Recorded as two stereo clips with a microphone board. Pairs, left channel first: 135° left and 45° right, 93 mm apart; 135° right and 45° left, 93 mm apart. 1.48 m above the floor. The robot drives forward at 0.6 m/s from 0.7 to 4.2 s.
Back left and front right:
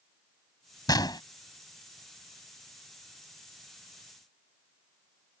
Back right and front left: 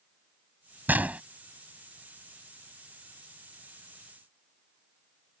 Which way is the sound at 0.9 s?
110° left.